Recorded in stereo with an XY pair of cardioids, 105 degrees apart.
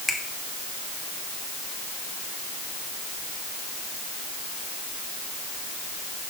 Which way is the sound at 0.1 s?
10° right.